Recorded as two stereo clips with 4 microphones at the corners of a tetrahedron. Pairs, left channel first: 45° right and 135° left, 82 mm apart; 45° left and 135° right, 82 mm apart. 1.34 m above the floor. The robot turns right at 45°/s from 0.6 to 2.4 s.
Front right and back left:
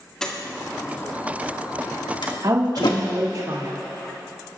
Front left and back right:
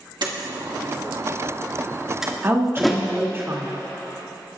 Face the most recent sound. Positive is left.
turn(degrees=165)